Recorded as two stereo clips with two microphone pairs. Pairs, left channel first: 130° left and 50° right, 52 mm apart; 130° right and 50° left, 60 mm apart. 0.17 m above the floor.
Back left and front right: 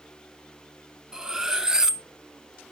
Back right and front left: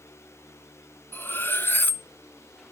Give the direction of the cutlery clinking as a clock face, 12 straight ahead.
4 o'clock.